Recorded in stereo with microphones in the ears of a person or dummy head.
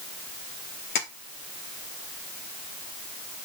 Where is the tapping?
50° left (ahead or behind), 1.4 m.